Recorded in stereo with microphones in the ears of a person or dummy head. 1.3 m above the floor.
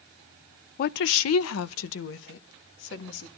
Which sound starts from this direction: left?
A woman speaking, at 0.8 s.